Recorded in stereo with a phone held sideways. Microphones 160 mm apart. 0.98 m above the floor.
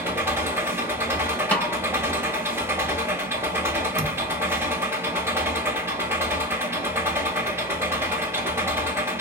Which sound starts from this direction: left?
A thud, at 4.0 s.